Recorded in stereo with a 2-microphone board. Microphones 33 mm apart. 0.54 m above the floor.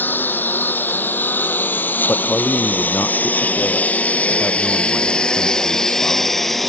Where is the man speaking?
75° left (ahead or behind).